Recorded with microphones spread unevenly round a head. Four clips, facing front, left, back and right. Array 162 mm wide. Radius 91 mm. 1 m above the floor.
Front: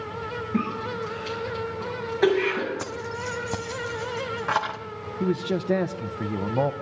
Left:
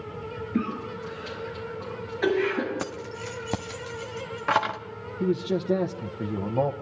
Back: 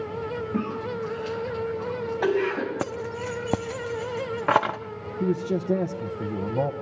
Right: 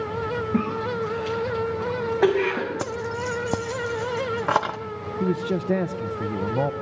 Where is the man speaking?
160° right, 0.8 m.